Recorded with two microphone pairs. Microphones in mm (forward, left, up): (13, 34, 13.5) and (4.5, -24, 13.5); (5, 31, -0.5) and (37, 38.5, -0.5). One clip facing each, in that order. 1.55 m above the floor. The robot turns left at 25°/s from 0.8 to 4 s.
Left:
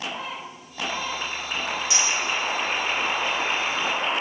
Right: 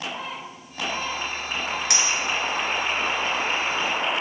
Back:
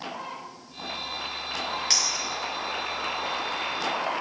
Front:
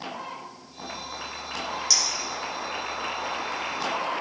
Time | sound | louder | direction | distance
1.9 | a clink | even, even | 115° right | 1.2 m